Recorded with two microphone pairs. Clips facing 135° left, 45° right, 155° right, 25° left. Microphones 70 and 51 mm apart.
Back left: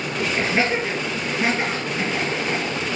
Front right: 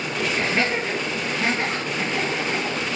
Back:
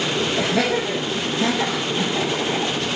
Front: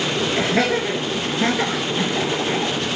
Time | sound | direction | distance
0.4 | laughter | 60° left | 2.5 m